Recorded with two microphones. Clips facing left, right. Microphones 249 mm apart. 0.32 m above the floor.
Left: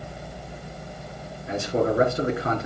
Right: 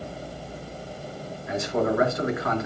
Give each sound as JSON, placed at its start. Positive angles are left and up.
{"t": 1.5, "sound": "a man speaking", "side_deg": 30, "distance_m": 5.0}